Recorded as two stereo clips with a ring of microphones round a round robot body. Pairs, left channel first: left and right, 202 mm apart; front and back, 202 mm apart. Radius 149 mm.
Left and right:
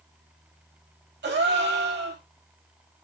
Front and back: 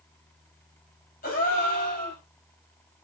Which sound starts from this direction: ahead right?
A gasp, at 1.2 s.